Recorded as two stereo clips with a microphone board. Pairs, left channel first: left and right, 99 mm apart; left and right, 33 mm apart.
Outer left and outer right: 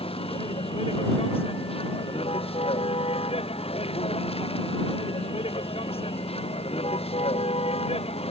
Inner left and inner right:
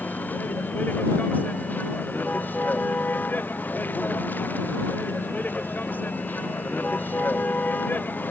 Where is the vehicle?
70° left (ahead or behind); by 8.3 s 75° left (ahead or behind).